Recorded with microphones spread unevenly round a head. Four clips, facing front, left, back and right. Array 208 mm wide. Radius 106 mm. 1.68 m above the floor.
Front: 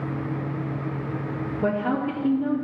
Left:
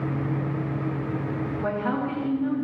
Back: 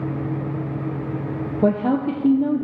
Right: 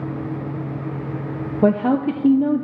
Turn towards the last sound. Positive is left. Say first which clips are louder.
# right 11 dB, back 5 dB
turn(degrees=-115)